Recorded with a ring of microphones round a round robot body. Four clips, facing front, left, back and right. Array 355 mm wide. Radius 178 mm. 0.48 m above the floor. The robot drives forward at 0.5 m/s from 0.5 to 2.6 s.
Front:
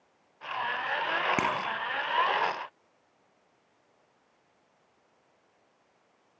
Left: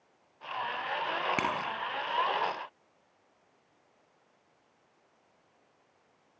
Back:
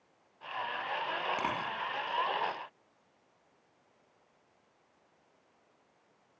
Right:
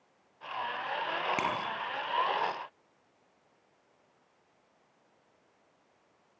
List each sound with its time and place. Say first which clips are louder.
1.4 s a bicycle bell: left 1 dB, front 5 dB; 10° left, 6 m